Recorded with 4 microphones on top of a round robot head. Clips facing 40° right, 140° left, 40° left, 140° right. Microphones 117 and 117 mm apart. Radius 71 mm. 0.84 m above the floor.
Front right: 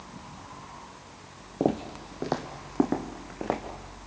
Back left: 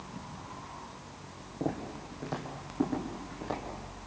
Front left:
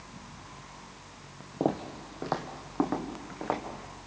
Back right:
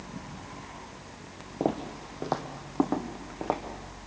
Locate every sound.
1.6 s footsteps: 55° right, 1.2 m; by 3.6 s 70° right, 3.5 m